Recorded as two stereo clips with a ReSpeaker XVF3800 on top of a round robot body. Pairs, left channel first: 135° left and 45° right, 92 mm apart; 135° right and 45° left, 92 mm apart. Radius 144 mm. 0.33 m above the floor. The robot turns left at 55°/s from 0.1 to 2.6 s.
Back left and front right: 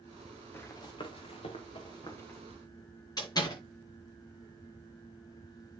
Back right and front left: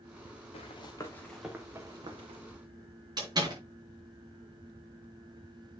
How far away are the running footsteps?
About 2.5 m.